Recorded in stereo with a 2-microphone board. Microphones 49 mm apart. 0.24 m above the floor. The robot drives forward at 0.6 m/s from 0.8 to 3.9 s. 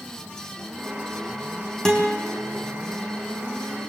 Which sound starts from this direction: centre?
A guitar, at 1.9 s.